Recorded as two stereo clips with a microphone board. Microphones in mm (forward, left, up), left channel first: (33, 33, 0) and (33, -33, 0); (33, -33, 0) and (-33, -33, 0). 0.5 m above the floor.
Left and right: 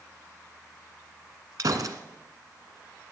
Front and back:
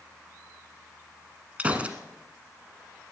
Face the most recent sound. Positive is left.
turn(degrees=-110)